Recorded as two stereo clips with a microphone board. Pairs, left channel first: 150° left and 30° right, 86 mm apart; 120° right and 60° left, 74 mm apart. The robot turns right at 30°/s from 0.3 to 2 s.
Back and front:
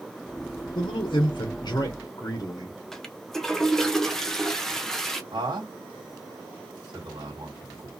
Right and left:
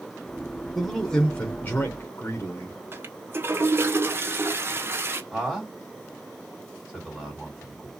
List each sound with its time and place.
0.8 s a man speaking: 145° left, 0.8 m; by 2.8 s 175° right, 0.8 m
2.9 s a toilet flushing: 70° left, 0.5 m
5.3 s a man speaking: 35° right, 1.5 m